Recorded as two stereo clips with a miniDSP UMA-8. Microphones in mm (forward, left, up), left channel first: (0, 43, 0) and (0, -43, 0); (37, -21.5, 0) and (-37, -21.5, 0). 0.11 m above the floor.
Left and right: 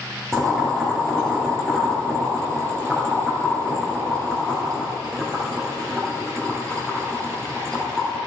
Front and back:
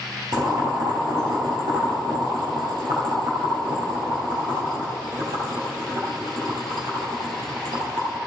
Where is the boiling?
175° left, 3 m.